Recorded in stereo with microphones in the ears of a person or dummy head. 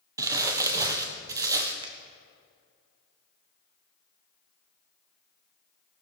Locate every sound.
0.2 s crumpling: 20° right (ahead or behind), 0.9 m
1.8 s a finger snap: 25° right (ahead or behind), 0.9 m